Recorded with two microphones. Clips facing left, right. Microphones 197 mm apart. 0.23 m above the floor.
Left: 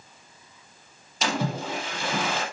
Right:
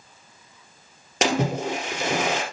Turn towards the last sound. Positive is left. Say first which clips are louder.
# right 5 dB
turn(degrees=-75)  # may be behind; listen again after turning